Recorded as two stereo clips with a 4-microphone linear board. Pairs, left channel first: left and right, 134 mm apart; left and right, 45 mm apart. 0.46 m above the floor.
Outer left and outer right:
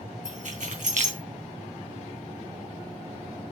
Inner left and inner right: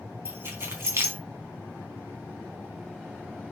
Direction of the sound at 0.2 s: 80° right.